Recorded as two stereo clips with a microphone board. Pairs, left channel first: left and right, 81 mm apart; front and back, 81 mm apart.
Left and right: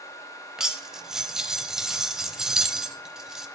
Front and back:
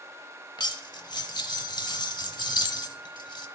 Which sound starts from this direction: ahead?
Cutlery clinking, at 0.6 s.